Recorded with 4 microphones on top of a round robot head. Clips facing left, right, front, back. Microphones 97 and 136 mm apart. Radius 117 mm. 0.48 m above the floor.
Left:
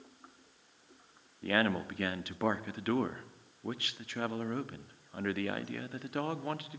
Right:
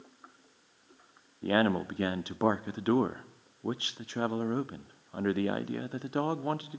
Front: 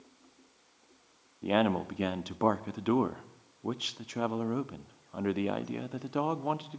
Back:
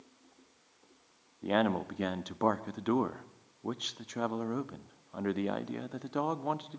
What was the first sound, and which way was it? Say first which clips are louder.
A man speaking: right 4 dB, front 2 dB; 75° right.